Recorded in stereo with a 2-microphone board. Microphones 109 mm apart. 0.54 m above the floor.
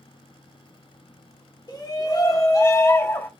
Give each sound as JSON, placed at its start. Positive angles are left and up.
{"t": 1.7, "sound": "a shout", "side_deg": 45, "distance_m": 1.8}